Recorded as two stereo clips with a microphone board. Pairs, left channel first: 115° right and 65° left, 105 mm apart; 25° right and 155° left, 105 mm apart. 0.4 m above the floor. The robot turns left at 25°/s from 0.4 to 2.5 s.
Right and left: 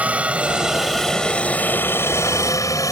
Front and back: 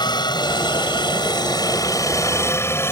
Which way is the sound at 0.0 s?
5° right.